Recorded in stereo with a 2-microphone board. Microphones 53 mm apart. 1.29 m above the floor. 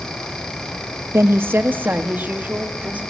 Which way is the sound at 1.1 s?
55° right (ahead or behind).